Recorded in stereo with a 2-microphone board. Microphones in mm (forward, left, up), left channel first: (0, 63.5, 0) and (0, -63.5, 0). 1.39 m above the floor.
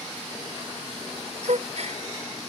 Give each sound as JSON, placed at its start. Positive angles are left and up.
{"t": 1.4, "sound": "a gasp", "side_deg": -65}